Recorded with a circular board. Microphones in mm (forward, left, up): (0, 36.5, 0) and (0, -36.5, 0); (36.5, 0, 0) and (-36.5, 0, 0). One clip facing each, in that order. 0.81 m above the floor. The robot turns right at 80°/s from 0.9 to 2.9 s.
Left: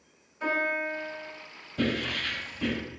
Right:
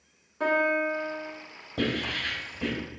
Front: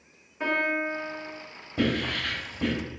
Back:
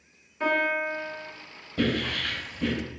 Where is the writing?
75° right, 1.4 m; by 2.7 s straight ahead, 1.4 m.